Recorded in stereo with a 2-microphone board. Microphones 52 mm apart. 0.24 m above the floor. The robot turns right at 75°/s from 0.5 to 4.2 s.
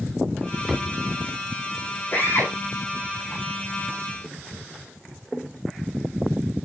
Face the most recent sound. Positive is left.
turn(degrees=-165)